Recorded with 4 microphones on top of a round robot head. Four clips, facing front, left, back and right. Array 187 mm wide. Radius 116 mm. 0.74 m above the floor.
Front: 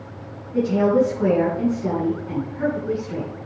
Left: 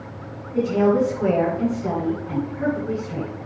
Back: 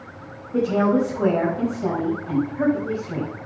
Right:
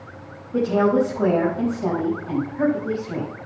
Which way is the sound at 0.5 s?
130° right.